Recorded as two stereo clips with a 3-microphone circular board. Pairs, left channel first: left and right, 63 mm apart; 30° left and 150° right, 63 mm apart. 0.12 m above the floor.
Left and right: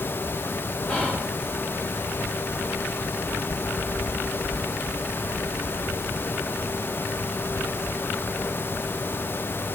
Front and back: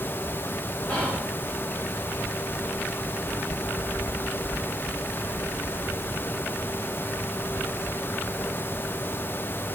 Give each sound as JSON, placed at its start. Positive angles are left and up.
{"t": 0.9, "sound": "whispering", "azimuth_deg": 75, "distance_m": 1.4}